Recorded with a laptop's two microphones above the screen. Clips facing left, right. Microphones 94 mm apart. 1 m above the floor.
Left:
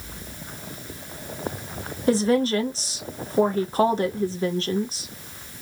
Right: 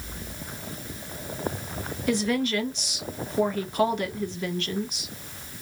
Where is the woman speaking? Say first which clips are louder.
Left 5 dB; 35° left (ahead or behind), 0.5 m.